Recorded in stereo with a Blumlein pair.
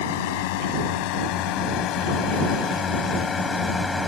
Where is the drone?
50° left; by 4.1 s 10° left.